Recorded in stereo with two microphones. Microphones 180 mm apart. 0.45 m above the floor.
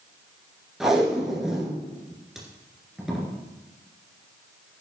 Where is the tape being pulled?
Centre (ahead or behind), 2.5 m.